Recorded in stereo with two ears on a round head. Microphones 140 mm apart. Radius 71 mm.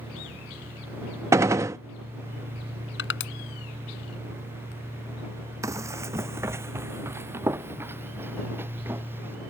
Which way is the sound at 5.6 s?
20° right (ahead or behind).